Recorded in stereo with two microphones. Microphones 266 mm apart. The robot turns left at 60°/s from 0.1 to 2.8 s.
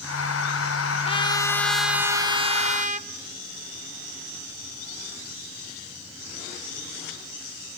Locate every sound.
1.1 s a trumpet: 45° left, 1.1 m; by 3.1 s 60° right, 1.1 m